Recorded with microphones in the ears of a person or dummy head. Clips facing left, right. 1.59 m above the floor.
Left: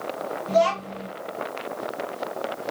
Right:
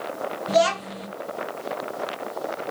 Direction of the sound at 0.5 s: 10° right (ahead or behind).